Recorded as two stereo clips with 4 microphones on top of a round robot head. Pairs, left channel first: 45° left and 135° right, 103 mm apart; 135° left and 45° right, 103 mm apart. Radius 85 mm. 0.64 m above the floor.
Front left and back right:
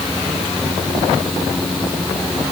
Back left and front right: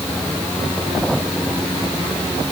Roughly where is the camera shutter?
No camera shutter in this recording.